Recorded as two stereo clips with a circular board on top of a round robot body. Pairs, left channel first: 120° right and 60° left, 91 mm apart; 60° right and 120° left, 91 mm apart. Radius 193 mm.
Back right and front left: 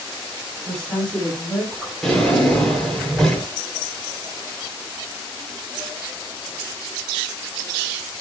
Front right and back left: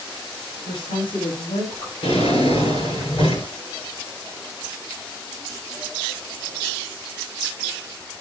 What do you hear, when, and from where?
0.7 s a woman speaking: 35° right, 8.5 m; by 1.9 s 40° right, 7 m
2.0 s a drawer: 35° right, 8 m